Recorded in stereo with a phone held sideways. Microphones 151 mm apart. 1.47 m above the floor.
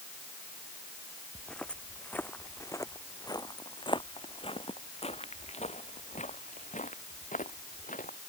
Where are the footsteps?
5° left (ahead or behind); by 8.2 s 60° left (ahead or behind).